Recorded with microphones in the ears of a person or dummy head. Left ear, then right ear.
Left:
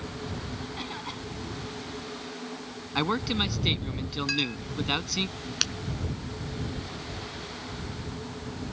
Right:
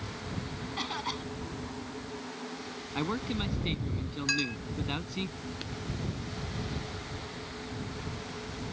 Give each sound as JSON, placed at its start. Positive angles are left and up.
{"t": 0.8, "sound": "a cough", "side_deg": -25}
{"t": 3.0, "sound": "a man speaking", "side_deg": 25}
{"t": 4.3, "sound": "a clink", "side_deg": -15}
{"t": 5.6, "sound": "breaking glass", "side_deg": 55}